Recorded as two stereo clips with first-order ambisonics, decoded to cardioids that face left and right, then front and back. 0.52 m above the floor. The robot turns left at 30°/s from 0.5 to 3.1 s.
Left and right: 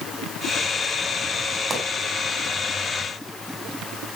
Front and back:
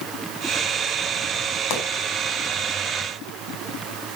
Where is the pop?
20° right, 5 m; by 1.9 s 25° right, 5 m.